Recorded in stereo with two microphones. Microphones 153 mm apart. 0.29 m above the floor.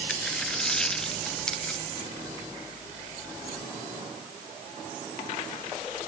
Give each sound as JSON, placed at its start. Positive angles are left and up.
{"t": 0.1, "sound": "a dropped coin", "side_deg": 5}